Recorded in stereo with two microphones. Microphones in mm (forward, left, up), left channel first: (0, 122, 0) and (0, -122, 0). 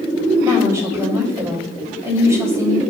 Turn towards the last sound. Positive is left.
turn(degrees=-10)  # may be behind; listen again after turning